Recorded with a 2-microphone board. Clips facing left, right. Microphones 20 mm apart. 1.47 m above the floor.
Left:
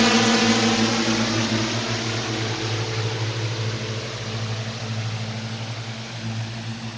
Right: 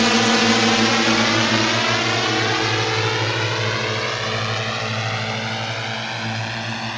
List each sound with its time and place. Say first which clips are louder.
0.0 s a drone: right 2 dB; 5° right (ahead or behind); by 7.0 s 85° right